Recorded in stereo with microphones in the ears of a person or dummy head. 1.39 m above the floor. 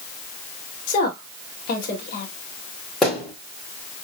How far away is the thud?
About 3.5 m.